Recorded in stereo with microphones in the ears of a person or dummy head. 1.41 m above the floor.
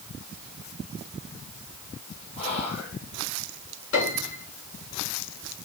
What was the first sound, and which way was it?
Whispering, 35° left (ahead or behind).